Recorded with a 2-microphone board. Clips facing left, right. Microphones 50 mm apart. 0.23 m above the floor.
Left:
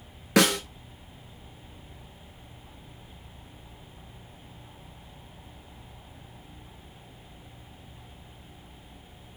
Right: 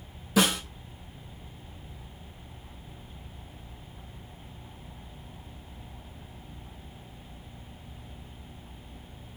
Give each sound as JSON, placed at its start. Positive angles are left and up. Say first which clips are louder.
{"t": 0.4, "sound": "a snare drum", "louder": "left 3 dB", "side_deg": 75, "distance_m": 1.1}